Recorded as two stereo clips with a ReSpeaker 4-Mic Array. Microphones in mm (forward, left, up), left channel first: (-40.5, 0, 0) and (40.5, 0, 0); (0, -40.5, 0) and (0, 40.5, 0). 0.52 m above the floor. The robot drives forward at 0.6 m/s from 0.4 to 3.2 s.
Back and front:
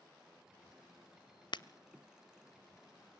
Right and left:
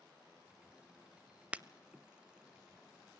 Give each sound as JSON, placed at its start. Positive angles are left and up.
{"t": 1.5, "sound": "breaking glass", "azimuth_deg": 165, "distance_m": 0.6}